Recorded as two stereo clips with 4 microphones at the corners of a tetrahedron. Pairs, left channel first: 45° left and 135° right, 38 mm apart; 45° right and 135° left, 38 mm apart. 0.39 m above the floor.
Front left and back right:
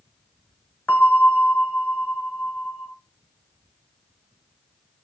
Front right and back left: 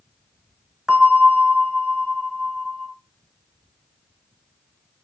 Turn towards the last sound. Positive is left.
turn(degrees=65)